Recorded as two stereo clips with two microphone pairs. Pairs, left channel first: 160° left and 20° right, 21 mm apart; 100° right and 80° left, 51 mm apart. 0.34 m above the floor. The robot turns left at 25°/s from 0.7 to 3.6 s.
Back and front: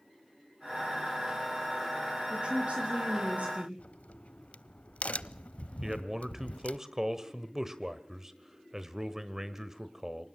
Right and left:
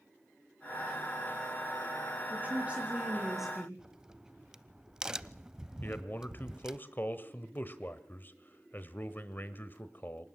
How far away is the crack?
About 0.5 m.